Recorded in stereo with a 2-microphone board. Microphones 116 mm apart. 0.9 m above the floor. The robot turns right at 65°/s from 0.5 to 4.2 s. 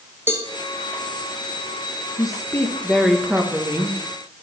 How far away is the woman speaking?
About 0.8 m.